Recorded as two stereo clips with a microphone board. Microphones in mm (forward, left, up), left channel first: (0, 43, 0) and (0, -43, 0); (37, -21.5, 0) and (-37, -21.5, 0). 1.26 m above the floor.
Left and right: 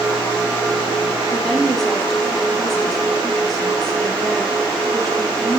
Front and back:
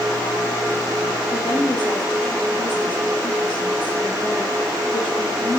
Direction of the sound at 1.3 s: Straight ahead.